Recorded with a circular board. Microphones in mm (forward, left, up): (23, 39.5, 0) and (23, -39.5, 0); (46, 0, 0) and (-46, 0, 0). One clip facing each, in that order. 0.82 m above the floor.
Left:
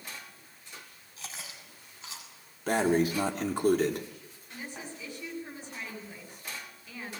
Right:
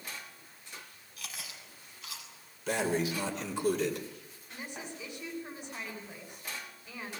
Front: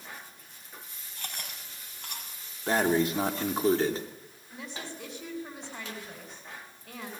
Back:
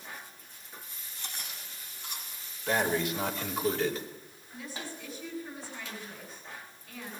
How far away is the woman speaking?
About 9.5 m.